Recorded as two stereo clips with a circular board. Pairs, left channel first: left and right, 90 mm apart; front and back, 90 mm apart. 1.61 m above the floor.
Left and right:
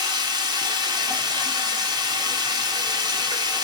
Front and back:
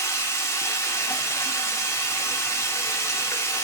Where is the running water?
55° right, 0.8 m.